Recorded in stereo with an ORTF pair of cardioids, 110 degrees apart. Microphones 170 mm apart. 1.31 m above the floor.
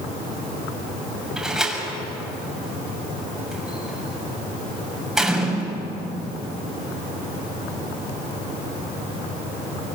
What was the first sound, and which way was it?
A door slam, straight ahead.